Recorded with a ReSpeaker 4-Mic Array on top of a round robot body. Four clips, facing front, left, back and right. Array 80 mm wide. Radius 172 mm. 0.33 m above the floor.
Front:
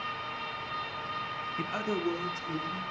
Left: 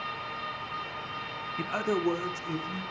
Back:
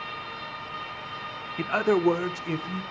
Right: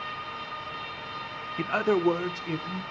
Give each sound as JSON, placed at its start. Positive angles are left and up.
{"t": 1.6, "sound": "a man speaking", "azimuth_deg": -140, "distance_m": 0.9}